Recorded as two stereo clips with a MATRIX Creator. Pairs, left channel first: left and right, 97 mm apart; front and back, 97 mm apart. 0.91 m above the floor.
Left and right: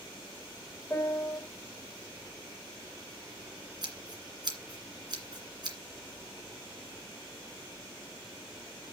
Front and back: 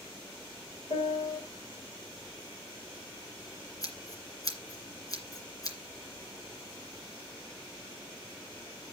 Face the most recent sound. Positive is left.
turn(degrees=-50)